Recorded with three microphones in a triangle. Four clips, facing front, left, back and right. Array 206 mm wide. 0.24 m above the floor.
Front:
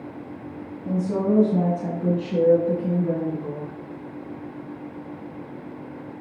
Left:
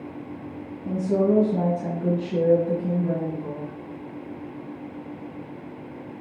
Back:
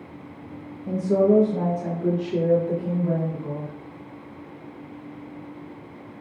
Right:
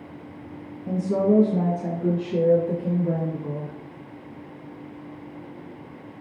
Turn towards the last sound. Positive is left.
turn(degrees=5)